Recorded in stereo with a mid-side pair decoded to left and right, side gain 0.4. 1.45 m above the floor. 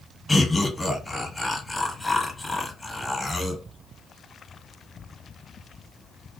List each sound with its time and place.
0.3 s laughter: 15° left, 1.2 m